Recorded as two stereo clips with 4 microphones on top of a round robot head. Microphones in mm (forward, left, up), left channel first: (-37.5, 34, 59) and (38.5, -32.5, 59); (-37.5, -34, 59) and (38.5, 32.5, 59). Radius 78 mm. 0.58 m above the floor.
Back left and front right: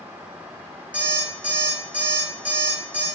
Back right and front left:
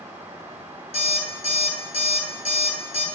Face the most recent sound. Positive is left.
turn(degrees=-120)